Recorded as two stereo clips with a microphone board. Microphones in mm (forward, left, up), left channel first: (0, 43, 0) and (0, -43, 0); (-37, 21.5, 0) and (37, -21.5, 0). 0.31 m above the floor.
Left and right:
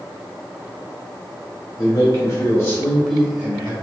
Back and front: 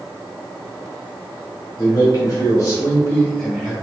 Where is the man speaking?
120° left, 1.9 m; by 3.7 s 110° right, 1.1 m.